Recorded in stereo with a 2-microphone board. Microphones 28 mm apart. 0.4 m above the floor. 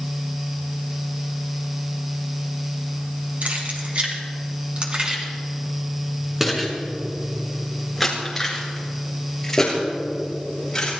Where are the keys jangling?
60° right (ahead or behind), 3 m; by 10.9 s 20° left (ahead or behind), 6.5 m.